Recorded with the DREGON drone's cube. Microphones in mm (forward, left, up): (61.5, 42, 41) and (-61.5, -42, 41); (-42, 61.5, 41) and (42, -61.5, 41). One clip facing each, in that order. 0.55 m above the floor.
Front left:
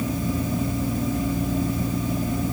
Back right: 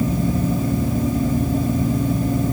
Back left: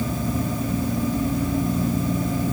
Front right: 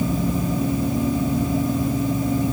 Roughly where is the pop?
No pop in this recording.